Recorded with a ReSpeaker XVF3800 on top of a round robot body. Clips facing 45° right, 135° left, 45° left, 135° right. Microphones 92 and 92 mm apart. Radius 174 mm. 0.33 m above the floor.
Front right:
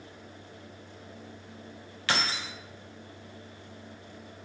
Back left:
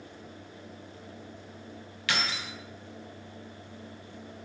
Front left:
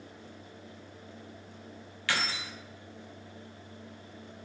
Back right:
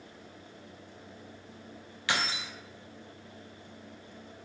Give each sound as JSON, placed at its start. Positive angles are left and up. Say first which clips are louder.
{"t": 2.1, "sound": "keys jangling", "louder": "front right 2 dB, back right 1 dB", "azimuth_deg": -75, "distance_m": 0.6}